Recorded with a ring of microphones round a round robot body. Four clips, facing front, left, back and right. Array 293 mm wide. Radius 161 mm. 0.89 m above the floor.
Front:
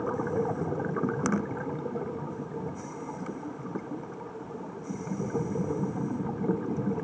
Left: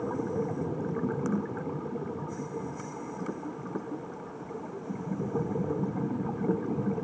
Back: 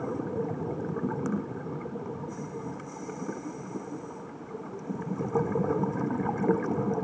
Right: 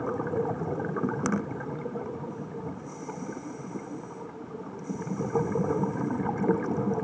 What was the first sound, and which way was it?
Only background noise.